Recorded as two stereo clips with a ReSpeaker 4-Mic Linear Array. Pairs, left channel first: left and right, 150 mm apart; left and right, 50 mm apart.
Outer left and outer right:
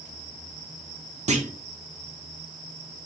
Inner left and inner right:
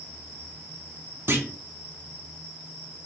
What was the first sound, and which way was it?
A clunk, 50° right (ahead or behind).